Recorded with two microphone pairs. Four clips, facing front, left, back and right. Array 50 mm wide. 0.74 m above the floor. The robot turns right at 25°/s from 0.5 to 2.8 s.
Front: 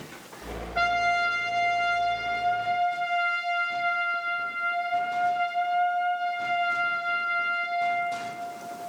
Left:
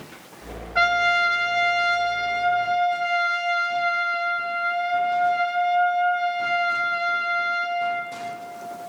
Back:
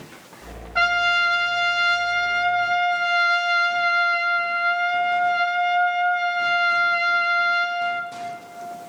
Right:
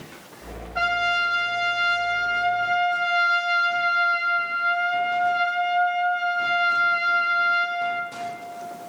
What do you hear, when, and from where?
0.8 s a trumpet: 145° left, 1.6 m; by 8.1 s 160° right, 1.6 m